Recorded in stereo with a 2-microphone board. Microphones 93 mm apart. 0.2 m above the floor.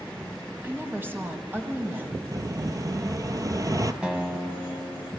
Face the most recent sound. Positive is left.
turn(degrees=-10)  # may be behind; listen again after turning